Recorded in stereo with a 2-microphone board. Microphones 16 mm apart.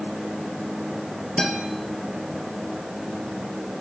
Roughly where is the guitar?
Left.